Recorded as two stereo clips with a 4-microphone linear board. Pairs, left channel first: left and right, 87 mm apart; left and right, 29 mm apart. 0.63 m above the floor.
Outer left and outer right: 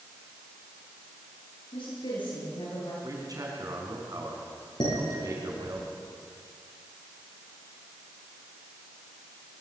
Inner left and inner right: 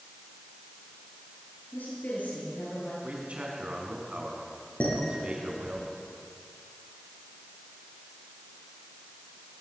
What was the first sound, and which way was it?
A woman speaking, 75° left (ahead or behind).